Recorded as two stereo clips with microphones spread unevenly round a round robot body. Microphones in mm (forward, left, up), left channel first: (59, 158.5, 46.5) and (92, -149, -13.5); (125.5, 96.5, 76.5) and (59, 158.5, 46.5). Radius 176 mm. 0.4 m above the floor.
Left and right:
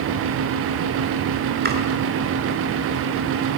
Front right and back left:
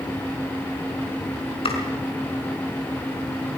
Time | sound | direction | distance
1.6 | chopping | 25° right | 4.5 m